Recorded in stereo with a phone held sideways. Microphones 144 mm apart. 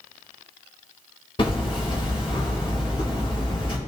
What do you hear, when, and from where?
1.4 s hammering: 35° left (ahead or behind), 1.9 m